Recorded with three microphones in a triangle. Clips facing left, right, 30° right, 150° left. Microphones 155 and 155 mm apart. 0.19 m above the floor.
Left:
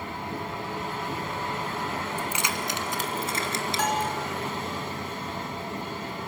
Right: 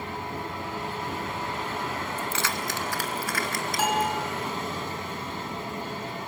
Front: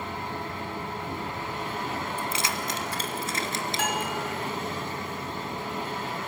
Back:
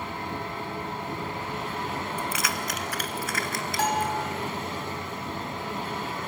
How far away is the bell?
About 2.0 m.